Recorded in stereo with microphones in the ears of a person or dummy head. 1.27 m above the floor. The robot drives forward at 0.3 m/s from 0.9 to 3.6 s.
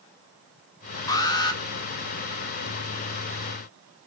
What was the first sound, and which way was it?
An alarm, 20° left (ahead or behind).